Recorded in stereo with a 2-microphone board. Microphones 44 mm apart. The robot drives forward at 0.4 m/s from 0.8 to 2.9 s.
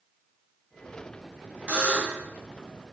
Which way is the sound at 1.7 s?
35° right (ahead or behind).